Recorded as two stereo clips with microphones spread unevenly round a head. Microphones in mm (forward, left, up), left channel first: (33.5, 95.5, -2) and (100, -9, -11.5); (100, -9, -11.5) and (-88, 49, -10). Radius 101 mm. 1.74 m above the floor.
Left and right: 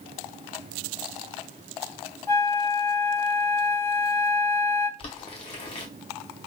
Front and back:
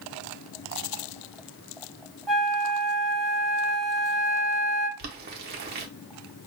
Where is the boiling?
155° left, 0.9 m.